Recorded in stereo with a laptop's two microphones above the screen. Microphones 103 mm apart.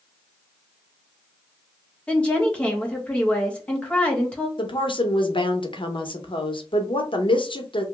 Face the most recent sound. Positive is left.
turn(degrees=50)  # may be behind; listen again after turning